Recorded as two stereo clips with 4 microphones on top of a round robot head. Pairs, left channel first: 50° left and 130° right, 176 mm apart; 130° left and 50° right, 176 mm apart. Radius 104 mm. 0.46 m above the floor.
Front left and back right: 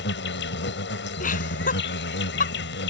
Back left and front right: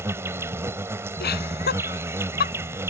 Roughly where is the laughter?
Left.